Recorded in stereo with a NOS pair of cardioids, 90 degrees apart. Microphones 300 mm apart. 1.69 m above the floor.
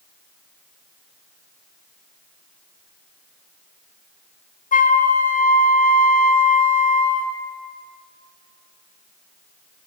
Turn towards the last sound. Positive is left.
turn(degrees=25)